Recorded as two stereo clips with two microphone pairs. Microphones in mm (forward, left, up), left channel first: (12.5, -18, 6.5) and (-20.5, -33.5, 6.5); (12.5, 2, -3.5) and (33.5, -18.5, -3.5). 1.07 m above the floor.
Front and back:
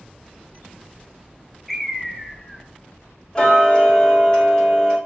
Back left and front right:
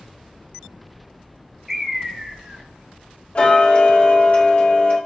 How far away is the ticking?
About 1.4 m.